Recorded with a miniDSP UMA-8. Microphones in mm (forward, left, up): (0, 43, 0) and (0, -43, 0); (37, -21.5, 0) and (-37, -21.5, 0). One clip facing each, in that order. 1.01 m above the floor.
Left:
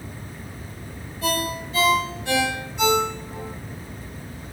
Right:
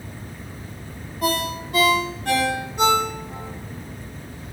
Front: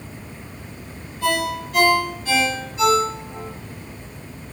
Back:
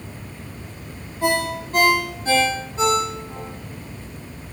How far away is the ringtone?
About 1.3 m.